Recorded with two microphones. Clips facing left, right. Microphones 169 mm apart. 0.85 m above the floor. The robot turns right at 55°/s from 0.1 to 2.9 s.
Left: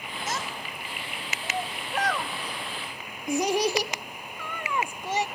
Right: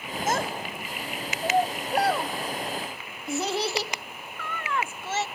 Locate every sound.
0.3 s a child speaking: 45° right (ahead or behind), 0.6 m; by 5.3 s 15° left (ahead or behind), 0.6 m